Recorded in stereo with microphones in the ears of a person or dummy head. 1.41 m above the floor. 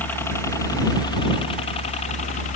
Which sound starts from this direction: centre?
A helicopter, at 0.0 s.